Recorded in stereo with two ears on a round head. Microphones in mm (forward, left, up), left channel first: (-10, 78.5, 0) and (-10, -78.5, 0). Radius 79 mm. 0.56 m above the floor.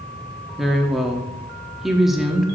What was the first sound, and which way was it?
A woman speaking, centre (ahead or behind).